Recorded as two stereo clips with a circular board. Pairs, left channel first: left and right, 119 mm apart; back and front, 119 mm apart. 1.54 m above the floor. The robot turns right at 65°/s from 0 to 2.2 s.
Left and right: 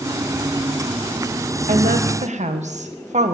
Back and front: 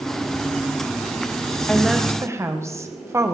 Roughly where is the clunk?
No clunk in this recording.